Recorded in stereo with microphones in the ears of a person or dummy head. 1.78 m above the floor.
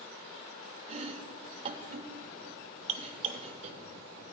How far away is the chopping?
About 0.7 m.